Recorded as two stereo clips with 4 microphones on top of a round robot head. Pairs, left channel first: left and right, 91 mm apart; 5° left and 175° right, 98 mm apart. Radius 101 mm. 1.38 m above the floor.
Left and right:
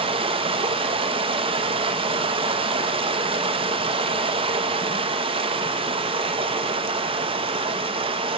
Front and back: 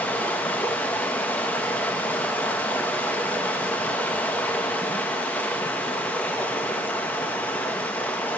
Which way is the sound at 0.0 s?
70° right.